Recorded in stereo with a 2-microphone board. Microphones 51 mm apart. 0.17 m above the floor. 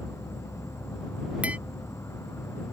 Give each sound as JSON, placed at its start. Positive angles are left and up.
{"t": 0.0, "sound": "an insect", "side_deg": 75}
{"t": 1.4, "sound": "tapping", "side_deg": -25}